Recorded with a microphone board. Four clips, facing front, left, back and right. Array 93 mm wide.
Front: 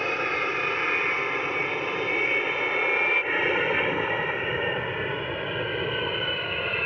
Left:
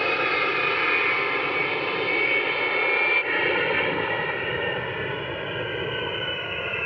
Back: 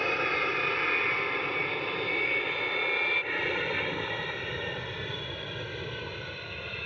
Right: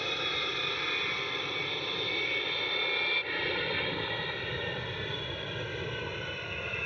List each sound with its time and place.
0.0 s an aircraft: 80° left; by 6.9 s 35° left